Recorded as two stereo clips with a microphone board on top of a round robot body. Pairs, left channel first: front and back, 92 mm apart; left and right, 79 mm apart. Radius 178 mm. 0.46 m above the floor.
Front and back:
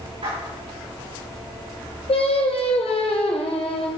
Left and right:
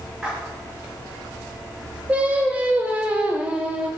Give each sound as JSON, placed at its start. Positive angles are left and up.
{"t": 0.2, "sound": "a splash", "azimuth_deg": -175, "distance_m": 5.5}
{"t": 2.1, "sound": "singing", "azimuth_deg": -15, "distance_m": 1.4}